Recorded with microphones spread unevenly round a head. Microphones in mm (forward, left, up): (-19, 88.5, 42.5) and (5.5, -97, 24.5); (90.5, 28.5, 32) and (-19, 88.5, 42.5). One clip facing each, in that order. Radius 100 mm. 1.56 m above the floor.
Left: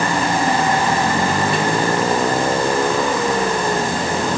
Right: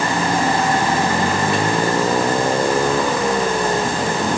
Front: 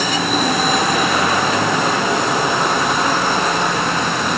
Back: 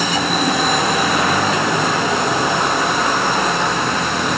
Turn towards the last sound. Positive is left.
No sound to turn to.